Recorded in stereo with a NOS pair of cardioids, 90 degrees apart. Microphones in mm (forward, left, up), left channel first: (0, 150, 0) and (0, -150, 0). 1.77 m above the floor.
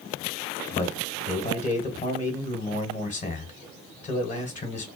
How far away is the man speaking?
About 1.5 m.